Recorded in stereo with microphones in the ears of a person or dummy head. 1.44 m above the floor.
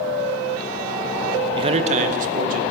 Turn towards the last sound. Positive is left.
turn(degrees=-45)  # may be behind; listen again after turning